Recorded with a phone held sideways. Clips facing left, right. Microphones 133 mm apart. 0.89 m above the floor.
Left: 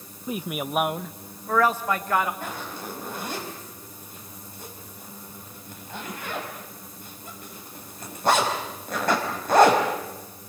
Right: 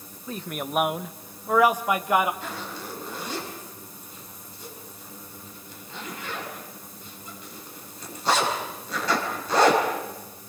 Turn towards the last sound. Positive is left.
turn(degrees=55)  # may be behind; listen again after turning